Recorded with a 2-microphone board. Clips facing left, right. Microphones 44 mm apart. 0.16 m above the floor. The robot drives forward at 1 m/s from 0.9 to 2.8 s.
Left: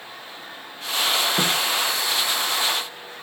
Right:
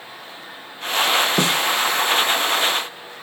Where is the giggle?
No giggle in this recording.